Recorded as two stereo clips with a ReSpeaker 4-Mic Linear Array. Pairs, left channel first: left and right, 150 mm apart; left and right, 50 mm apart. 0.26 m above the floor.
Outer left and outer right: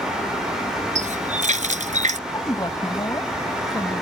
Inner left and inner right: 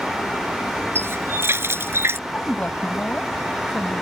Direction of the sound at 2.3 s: 25° left (ahead or behind).